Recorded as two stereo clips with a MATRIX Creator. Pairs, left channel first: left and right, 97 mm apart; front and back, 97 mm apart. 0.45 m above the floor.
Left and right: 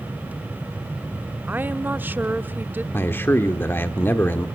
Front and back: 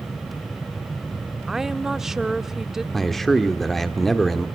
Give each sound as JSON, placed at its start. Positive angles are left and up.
{"t": 1.5, "sound": "a woman speaking", "azimuth_deg": -100, "distance_m": 0.7}
{"t": 2.9, "sound": "a man speaking", "azimuth_deg": 85, "distance_m": 1.2}